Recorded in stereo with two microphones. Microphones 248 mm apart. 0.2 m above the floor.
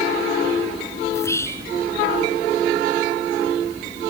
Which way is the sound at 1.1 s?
10° left (ahead or behind).